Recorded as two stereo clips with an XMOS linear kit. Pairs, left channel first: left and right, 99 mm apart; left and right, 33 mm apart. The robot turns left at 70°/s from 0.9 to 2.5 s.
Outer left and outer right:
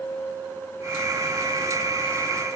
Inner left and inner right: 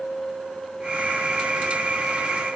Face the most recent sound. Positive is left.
No sound to turn to.